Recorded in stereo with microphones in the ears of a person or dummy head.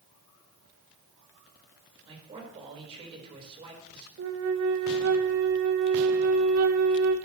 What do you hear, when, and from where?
2.0 s a man speaking: 30° right (ahead or behind), 4.5 m
4.2 s a flute: 80° right, 1.3 m